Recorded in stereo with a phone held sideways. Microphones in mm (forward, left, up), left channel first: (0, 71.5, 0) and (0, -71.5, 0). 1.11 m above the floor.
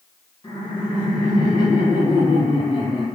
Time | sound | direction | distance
0.4 | laughter | 30° left (ahead or behind) | 2.0 m